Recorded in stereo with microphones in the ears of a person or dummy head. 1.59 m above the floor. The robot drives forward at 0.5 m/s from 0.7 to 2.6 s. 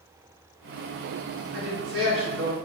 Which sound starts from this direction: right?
A woman speaking, at 1.5 s.